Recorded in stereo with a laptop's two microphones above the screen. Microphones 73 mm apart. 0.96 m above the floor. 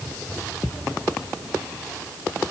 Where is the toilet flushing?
I don't hear a toilet flushing.